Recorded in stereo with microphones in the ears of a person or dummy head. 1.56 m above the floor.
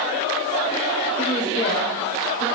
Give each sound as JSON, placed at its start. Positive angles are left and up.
{"t": 1.2, "sound": "a woman speaking", "side_deg": 30, "distance_m": 3.5}